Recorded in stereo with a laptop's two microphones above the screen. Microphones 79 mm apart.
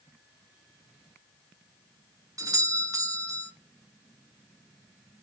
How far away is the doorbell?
About 1.2 m.